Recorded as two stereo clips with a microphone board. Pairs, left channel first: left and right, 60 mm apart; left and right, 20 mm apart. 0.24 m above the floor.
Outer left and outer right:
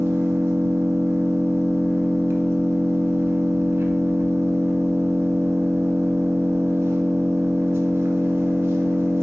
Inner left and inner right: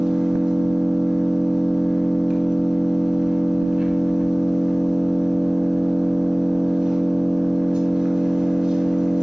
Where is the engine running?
50° right (ahead or behind), 1.4 m.